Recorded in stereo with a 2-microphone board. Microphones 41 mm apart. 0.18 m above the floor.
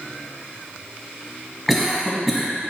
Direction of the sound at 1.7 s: Centre (ahead or behind).